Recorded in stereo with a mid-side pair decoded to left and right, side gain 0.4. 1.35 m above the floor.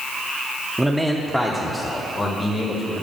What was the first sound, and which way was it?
A man speaking, 10° right.